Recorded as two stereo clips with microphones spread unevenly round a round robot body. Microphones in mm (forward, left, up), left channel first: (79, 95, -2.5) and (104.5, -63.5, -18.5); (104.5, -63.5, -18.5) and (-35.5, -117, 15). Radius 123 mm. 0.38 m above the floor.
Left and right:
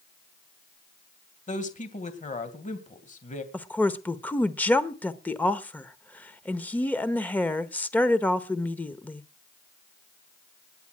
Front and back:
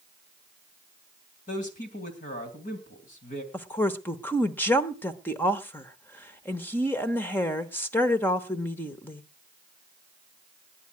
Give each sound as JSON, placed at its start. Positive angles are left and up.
{"t": 1.5, "sound": "a man speaking", "azimuth_deg": 55, "distance_m": 2.5}
{"t": 3.5, "sound": "a woman speaking", "azimuth_deg": 20, "distance_m": 1.1}